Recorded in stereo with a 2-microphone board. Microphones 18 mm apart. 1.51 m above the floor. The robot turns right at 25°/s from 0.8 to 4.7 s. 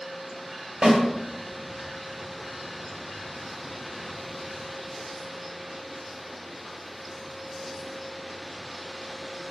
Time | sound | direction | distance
0.8 | a snare drum | 60° right (ahead or behind) | 2.5 m